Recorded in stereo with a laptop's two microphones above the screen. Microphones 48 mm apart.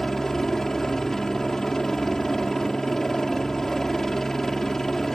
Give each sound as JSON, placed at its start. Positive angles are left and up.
{"t": 0.0, "sound": "a helicopter", "side_deg": 10}